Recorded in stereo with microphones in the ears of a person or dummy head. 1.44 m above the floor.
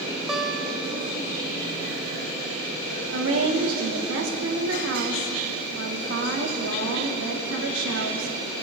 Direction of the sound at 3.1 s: 85° right.